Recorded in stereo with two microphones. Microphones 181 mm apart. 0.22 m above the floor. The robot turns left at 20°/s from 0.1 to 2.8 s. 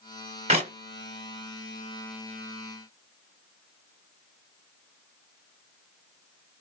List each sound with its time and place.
0.5 s a clap: 35° right (ahead or behind), 1.0 m; by 0.7 s 40° right (ahead or behind), 1.0 m